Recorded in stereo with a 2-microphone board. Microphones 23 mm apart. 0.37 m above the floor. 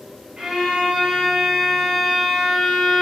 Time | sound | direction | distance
0.4 | a violin | 30° right (ahead or behind) | 1.0 m